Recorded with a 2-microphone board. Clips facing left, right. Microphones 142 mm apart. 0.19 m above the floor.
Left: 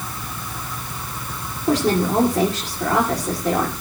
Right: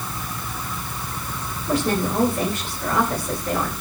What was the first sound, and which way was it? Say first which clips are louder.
A woman speaking: left 4 dB; 80° left.